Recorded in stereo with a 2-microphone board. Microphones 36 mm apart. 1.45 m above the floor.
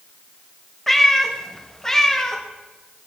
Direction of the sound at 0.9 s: 10° left (ahead or behind).